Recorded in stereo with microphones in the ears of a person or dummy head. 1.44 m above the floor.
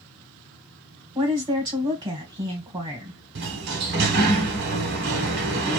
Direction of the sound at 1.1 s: 25° right (ahead or behind).